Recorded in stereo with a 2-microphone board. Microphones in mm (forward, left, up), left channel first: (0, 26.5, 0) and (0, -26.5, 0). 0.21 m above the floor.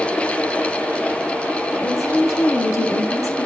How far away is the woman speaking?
About 4 m.